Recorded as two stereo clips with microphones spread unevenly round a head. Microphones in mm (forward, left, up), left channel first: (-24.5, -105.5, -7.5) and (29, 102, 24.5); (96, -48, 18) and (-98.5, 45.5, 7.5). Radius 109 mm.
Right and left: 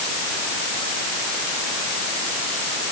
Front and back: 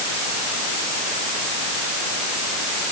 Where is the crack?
I don't hear a crack.